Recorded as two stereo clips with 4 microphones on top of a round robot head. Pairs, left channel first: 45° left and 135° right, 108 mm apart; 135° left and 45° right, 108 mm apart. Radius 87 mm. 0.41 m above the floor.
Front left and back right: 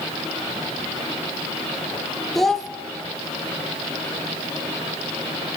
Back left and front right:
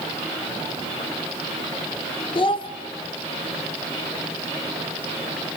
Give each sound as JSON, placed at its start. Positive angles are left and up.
{"t": 2.4, "sound": "a child speaking", "azimuth_deg": 130, "distance_m": 1.0}